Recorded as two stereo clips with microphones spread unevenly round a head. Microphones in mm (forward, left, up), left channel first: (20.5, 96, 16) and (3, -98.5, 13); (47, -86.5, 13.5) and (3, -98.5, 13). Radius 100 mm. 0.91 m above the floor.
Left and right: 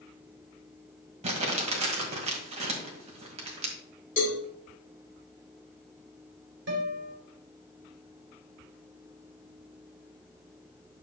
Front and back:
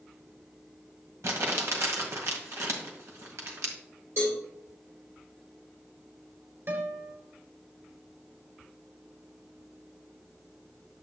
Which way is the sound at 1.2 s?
155° right.